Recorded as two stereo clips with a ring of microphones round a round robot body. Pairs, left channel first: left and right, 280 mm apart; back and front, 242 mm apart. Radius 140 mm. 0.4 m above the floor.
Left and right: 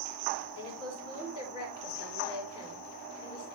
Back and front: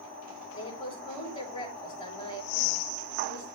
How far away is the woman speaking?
About 5.5 m.